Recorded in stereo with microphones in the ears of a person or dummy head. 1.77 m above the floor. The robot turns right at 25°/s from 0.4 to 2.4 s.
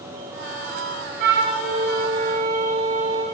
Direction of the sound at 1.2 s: 100° right.